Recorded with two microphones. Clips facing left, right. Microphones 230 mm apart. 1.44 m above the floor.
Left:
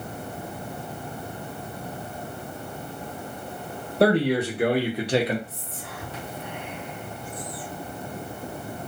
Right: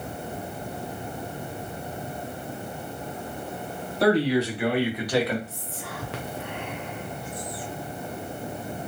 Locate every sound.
4.0 s a man speaking: 60° left (ahead or behind), 1.2 m; by 5.4 s 15° left (ahead or behind), 0.8 m
5.5 s whispering: 75° right (ahead or behind), 0.5 m